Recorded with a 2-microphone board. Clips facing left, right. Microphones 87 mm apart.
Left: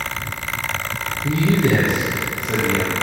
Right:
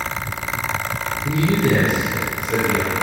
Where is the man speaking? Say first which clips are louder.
Left 1 dB; 45° left (ahead or behind), 3.5 m.